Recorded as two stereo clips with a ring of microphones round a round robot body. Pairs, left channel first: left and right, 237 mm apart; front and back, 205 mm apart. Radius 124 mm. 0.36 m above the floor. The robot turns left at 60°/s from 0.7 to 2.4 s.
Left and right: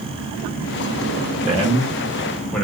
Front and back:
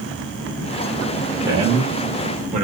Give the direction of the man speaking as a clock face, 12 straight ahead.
4 o'clock.